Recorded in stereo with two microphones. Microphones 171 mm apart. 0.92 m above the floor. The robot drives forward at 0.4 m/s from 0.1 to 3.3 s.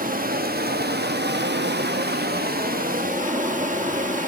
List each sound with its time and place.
0.0 s running water: 55° right (ahead or behind), 1.1 m; by 4.3 s 50° right (ahead or behind), 1.1 m